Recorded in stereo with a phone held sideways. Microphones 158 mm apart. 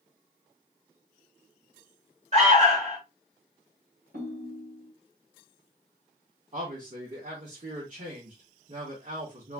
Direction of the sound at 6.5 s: 55° right (ahead or behind).